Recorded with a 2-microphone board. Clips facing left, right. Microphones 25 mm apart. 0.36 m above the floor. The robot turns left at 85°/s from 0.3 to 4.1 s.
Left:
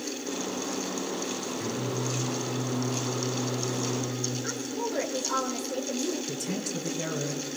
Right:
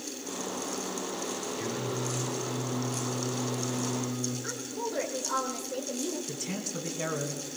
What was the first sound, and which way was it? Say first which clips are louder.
Singing: left 2 dB; 150° right.